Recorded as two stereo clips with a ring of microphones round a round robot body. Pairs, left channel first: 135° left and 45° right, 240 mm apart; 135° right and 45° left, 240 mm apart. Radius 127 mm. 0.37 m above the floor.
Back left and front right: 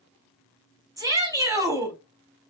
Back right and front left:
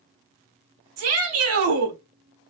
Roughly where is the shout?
Ahead left.